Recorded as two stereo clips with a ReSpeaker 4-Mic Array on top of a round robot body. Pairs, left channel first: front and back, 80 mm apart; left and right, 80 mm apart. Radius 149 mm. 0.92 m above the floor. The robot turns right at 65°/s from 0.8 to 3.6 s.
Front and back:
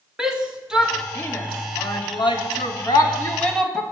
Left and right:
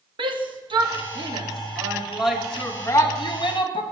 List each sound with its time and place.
0.2 s a shout: 100° right, 2.5 m; by 3.8 s 85° left, 2.5 m